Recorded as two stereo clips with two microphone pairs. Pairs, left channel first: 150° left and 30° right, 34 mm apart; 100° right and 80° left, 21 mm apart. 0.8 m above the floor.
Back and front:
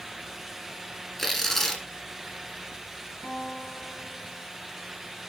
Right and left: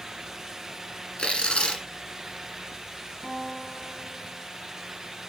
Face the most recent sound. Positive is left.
turn(degrees=170)